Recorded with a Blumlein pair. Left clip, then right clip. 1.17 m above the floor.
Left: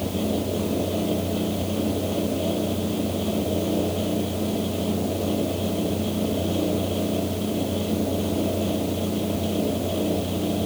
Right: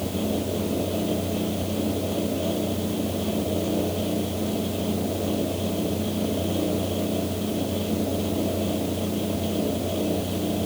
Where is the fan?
5° left.